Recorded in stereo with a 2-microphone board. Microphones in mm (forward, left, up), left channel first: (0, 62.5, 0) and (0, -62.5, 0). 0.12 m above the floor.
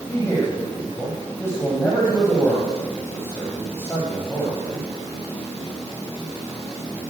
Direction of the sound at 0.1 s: 20° left (ahead or behind).